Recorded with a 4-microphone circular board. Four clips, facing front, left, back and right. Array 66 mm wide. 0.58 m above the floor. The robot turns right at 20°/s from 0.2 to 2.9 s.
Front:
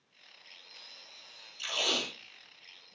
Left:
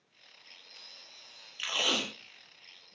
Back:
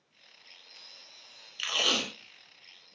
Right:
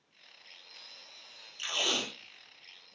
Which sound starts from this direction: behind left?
Tape being pulled, at 1.6 s.